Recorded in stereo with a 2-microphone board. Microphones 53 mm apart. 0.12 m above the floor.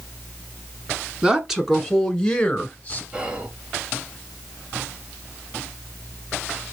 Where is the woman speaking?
15° right (ahead or behind), 1.4 m; by 3.0 s 25° left (ahead or behind), 1.4 m.